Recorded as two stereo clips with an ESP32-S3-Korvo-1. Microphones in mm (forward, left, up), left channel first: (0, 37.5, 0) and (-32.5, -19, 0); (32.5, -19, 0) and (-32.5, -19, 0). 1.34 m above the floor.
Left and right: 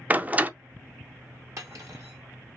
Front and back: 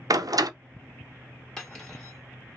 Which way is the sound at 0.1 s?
175° left.